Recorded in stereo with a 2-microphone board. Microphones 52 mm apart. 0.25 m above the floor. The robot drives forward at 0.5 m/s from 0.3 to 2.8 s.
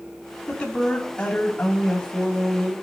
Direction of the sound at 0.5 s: 20° left (ahead or behind).